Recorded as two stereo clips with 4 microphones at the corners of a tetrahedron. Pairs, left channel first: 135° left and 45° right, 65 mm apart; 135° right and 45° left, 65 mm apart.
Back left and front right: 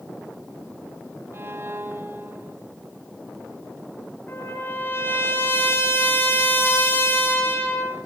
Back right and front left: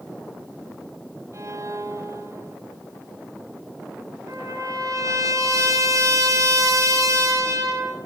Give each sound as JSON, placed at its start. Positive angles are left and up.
{"t": 1.3, "sound": "a violin", "azimuth_deg": 10, "distance_m": 2.5}
{"t": 4.3, "sound": "a trumpet", "azimuth_deg": 80, "distance_m": 6.5}